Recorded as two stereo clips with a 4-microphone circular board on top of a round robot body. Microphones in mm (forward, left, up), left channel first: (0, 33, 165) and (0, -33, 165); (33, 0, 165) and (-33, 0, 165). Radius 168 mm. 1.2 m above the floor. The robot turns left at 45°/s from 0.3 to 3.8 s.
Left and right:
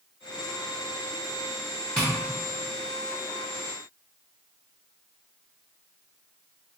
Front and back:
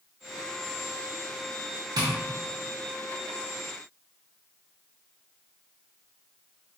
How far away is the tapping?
About 0.8 m.